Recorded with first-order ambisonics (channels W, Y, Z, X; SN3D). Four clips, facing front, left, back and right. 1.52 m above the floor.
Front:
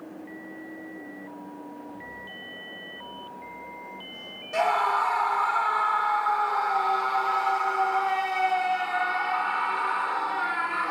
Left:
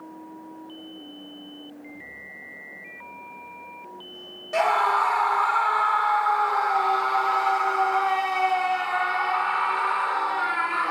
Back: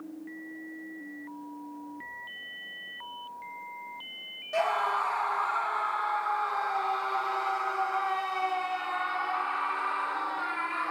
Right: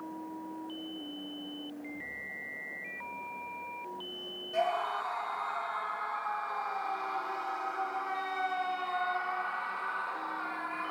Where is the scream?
85° left, 1.8 m.